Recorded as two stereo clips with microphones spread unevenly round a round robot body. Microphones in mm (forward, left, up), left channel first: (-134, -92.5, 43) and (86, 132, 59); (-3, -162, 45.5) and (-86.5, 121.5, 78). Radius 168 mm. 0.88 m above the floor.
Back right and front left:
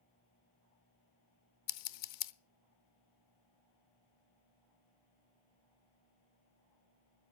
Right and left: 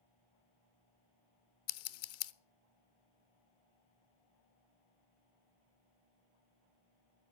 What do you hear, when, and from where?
1.7 s scissors: 110° right, 0.8 m